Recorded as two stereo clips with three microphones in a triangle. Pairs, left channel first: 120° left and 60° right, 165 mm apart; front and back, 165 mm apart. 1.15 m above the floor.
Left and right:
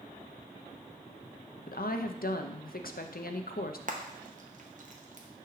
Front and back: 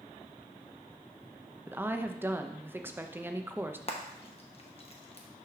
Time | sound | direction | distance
1.7 | a woman speaking | 105° left | 0.6 m
3.9 | frying | 40° right | 0.9 m